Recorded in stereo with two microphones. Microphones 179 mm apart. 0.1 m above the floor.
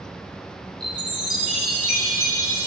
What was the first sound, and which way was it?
A chime, 25° right (ahead or behind).